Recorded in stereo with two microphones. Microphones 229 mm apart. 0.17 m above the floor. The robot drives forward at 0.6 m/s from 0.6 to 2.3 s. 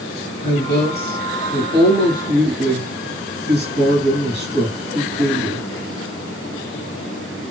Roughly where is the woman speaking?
Right.